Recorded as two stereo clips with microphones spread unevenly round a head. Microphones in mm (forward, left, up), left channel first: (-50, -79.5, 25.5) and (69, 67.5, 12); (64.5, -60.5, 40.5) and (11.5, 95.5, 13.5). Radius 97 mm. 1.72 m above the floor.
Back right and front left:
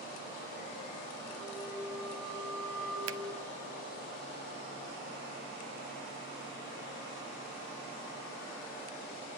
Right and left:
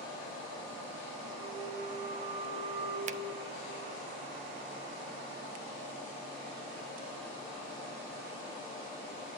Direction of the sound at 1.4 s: 150° left.